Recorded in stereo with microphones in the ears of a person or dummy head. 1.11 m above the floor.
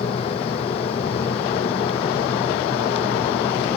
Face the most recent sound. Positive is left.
turn(degrees=30)  # may be behind; listen again after turning